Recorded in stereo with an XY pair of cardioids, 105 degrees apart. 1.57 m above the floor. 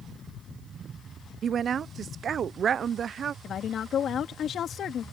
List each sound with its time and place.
1.4 s a woman speaking: 50° right
3.4 s a woman speaking: 55° left